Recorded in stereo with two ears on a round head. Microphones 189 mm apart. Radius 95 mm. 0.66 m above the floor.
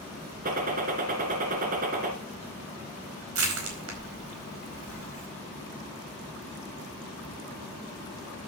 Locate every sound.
0.5 s a gunshot: 40° right (ahead or behind), 2.5 m
3.4 s crushing: 70° right (ahead or behind), 4.5 m